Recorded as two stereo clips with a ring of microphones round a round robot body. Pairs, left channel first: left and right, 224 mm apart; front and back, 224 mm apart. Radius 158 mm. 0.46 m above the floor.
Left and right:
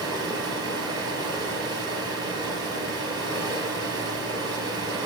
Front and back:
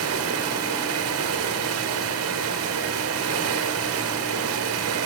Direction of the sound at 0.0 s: 170° right.